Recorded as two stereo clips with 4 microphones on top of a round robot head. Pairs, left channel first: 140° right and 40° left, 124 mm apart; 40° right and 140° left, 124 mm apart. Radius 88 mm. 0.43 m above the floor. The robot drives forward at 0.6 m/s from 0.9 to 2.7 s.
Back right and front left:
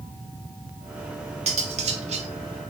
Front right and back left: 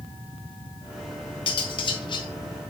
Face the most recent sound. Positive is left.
turn(degrees=15)